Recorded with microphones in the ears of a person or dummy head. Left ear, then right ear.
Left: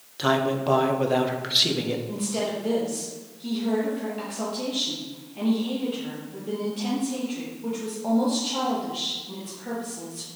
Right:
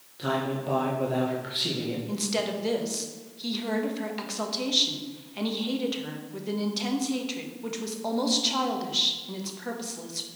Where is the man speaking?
40° left (ahead or behind), 1.5 m.